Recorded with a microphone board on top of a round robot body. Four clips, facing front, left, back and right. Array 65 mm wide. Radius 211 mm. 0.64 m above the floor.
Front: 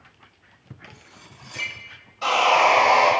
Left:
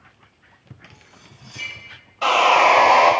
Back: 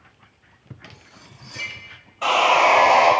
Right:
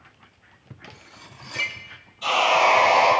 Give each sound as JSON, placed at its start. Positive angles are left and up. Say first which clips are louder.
{"t": 0.9, "sound": "cutlery clinking", "louder": "right 3 dB, even", "azimuth_deg": -80, "distance_m": 0.7}
{"t": 2.2, "sound": "sawing", "louder": "left 4 dB, back 1 dB", "azimuth_deg": 110, "distance_m": 2.0}